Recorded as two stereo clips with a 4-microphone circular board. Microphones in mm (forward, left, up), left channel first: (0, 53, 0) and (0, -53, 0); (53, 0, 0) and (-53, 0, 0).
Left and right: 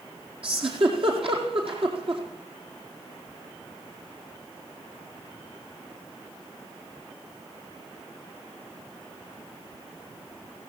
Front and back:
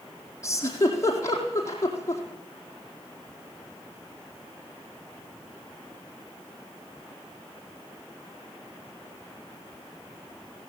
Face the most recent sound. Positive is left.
turn(degrees=-60)